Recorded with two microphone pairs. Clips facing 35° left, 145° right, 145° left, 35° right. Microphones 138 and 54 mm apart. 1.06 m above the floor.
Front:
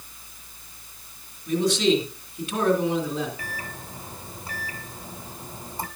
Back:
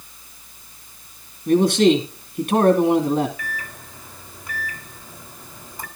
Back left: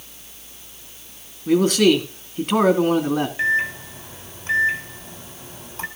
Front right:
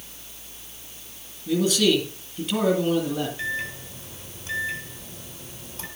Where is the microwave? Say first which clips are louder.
Back 2 dB, back left 9 dB; 90° left, 2.5 m.